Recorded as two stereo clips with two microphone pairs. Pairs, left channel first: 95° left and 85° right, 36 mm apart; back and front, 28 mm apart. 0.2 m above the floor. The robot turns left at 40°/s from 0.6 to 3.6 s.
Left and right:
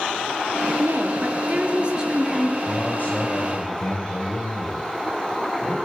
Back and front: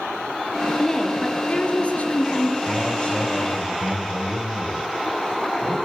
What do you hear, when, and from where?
0.8 s a woman speaking: 100° right, 3.5 m; by 2.6 s 170° right, 3.5 m
2.7 s a man speaking: 145° left, 5.5 m; by 5.8 s 110° left, 5.5 m